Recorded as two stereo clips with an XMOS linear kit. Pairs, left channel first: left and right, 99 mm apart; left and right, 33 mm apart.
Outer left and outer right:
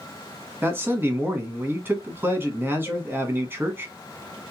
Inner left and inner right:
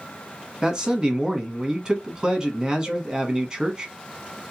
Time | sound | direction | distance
0.6 | a man speaking | 20° right (ahead or behind) | 1.3 m
2.9 | a cowbell | 35° left (ahead or behind) | 0.5 m